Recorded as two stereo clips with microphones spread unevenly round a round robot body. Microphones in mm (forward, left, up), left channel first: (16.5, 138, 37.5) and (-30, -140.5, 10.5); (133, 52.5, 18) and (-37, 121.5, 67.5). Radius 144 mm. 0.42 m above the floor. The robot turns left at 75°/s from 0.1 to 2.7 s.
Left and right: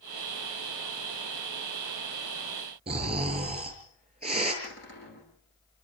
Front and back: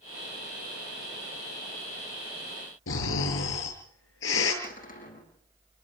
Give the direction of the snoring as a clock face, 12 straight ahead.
1 o'clock.